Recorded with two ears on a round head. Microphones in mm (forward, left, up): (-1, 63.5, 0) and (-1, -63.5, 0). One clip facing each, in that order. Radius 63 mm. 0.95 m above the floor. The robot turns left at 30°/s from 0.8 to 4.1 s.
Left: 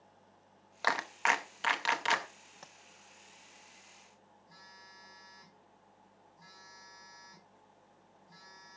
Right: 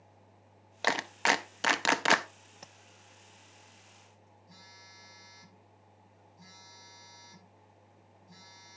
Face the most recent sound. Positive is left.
turn(degrees=-25)  # may be behind; listen again after turning